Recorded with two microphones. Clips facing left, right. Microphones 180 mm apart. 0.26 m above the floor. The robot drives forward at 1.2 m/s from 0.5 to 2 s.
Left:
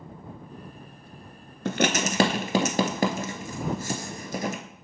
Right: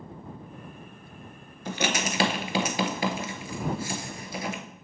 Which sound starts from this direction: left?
Writing, at 1.6 s.